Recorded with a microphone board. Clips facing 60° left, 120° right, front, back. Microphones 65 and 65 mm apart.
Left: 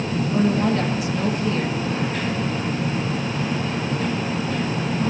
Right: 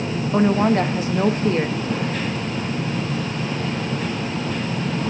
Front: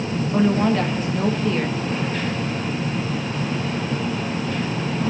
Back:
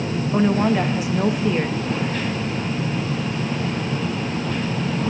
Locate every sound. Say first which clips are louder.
0.3 s a woman speaking: right 4 dB, even; 105° right, 1.1 m